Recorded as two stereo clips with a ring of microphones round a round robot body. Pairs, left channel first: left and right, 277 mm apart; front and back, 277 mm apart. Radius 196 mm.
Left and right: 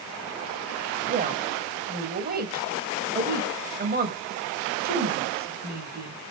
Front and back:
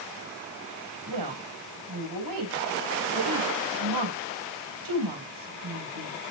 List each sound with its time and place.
1.1 s a woman speaking: 150° right, 3.5 m